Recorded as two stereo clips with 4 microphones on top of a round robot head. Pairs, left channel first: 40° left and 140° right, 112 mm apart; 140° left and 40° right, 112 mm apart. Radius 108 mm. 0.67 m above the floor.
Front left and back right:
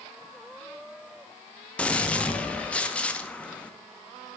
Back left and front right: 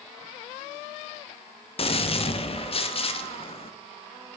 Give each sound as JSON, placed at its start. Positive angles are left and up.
{"t": 1.8, "sound": "a gunshot", "azimuth_deg": 120, "distance_m": 0.7}